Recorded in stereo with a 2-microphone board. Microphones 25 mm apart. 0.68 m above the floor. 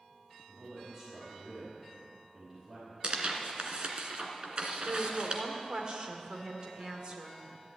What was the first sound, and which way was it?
A man speaking, 35° right (ahead or behind).